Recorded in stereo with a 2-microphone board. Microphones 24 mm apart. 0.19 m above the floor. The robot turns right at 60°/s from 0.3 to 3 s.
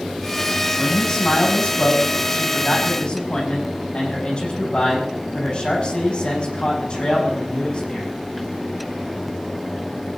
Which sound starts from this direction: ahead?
A man speaking, at 0.8 s.